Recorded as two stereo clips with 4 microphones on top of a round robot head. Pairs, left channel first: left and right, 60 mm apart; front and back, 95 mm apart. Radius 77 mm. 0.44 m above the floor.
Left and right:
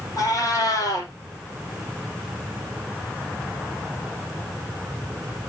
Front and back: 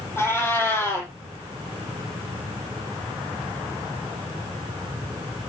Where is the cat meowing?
65° left, 6 m.